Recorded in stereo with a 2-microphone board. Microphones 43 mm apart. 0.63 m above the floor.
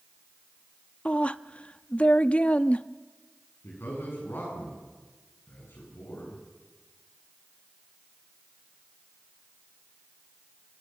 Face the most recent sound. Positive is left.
turn(degrees=60)  # may be behind; listen again after turning